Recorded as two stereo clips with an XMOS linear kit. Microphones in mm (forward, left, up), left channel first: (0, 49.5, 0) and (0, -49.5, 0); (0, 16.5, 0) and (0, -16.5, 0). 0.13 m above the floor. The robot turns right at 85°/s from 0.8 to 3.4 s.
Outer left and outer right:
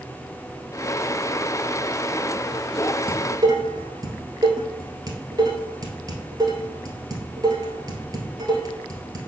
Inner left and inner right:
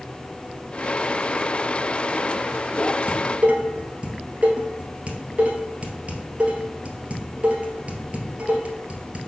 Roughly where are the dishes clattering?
Right.